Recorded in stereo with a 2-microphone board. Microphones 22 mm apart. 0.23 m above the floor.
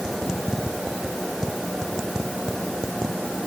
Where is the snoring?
No snoring in this recording.